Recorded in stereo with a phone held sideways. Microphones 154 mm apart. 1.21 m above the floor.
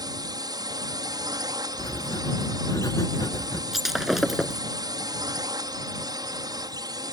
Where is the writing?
25° left (ahead or behind).